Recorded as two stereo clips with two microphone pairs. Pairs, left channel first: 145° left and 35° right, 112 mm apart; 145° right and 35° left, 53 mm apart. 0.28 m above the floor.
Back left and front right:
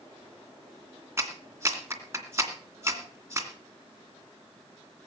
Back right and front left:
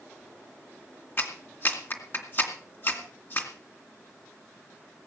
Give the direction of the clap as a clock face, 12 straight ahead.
3 o'clock.